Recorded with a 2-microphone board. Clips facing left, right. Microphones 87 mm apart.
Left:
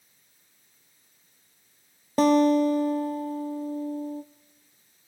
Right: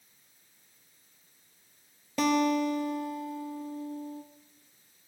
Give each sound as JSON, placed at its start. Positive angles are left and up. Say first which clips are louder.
{"t": 2.2, "sound": "a guitar", "louder": "left 7 dB", "side_deg": 40, "distance_m": 1.0}